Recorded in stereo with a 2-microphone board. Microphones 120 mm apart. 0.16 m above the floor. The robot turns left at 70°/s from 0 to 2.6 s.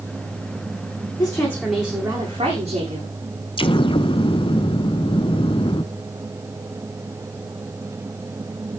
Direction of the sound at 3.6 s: 45° left (ahead or behind).